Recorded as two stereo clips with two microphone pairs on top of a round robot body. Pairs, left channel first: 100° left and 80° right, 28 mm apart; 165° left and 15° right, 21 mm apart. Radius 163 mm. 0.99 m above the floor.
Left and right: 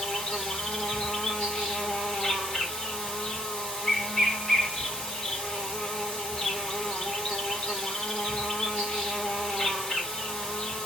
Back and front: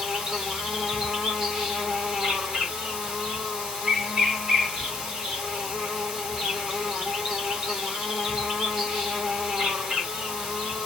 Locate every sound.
0.0 s an insect: 40° left, 3.5 m